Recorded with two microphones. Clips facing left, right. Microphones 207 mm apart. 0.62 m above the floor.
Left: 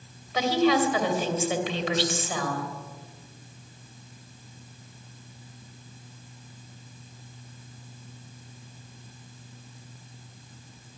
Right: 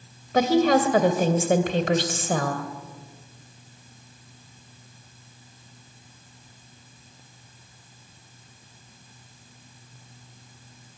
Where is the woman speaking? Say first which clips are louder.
Right 4 dB; 50° right (ahead or behind), 2.5 m.